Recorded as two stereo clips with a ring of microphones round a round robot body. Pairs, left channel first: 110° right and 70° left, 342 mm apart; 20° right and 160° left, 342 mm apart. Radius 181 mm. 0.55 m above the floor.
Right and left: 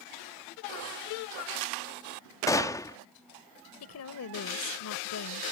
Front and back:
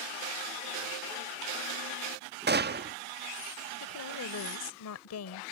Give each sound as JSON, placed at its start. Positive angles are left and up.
{"t": 2.5, "sound": "a gunshot", "azimuth_deg": 175}
{"t": 3.8, "sound": "a woman speaking", "azimuth_deg": -65}